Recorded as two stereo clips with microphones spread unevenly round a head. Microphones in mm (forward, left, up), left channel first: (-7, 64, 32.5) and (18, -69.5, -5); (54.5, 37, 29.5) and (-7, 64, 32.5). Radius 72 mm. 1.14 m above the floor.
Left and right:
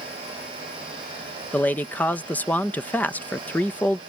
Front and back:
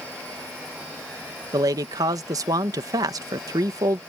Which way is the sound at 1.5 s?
175° right.